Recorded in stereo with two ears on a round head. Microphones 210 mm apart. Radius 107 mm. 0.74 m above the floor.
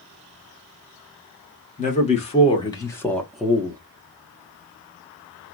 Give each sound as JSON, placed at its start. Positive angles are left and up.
{"t": 1.8, "sound": "a man speaking", "side_deg": 30, "distance_m": 1.7}